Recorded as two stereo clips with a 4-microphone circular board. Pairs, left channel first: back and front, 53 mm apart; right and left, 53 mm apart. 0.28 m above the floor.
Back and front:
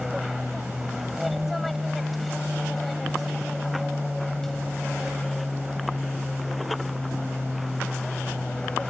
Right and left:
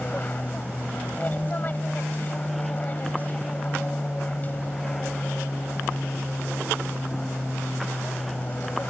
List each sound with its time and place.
0.0 s an aircraft: 85° right; by 8.9 s 115° right